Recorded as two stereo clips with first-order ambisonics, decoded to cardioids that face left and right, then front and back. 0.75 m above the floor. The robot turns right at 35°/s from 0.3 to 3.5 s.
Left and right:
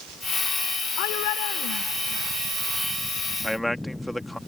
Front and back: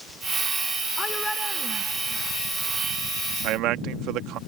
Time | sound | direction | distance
1.0 | a shout | 75° left | ?
3.4 | a man speaking | straight behind | ?